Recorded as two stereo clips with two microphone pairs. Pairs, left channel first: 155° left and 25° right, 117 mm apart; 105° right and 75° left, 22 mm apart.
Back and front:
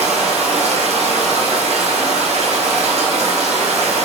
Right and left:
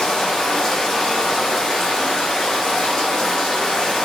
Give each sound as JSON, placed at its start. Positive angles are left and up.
{"t": 0.0, "sound": "running water", "azimuth_deg": -50, "distance_m": 0.8}